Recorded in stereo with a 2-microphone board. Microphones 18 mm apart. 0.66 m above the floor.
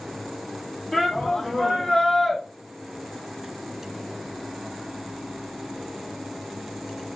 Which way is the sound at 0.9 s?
15° left (ahead or behind).